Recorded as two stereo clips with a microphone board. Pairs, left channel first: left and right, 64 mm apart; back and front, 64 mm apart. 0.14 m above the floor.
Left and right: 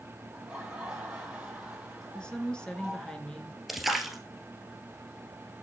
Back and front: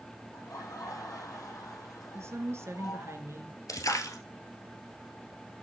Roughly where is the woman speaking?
Ahead.